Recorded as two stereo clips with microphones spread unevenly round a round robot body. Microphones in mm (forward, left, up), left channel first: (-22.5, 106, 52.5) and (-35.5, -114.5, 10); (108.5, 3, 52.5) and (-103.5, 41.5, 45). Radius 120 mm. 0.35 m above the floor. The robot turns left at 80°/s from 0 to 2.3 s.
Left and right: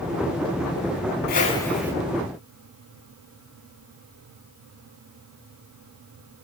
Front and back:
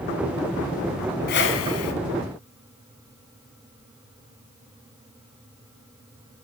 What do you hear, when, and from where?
1.3 s a whoosh: 35° left, 1.5 m; by 1.9 s 20° right, 1.5 m